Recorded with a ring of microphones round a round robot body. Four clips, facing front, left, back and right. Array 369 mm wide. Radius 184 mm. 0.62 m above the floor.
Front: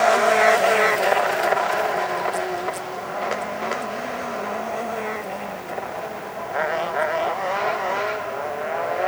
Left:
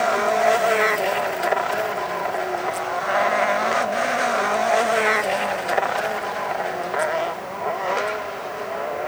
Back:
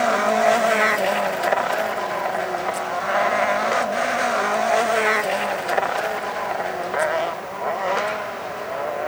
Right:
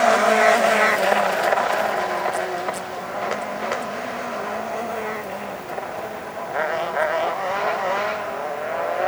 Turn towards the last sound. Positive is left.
No sound to turn to.